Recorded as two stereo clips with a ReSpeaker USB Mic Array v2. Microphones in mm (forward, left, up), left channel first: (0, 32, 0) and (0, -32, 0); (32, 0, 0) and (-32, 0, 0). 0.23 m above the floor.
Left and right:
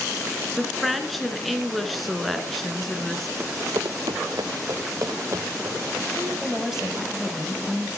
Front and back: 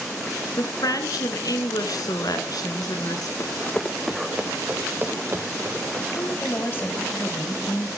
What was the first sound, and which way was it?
A woman speaking, straight ahead.